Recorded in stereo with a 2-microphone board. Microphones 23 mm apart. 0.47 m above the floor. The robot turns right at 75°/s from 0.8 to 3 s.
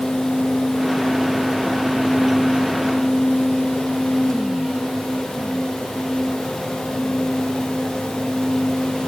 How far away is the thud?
I don't hear a thud.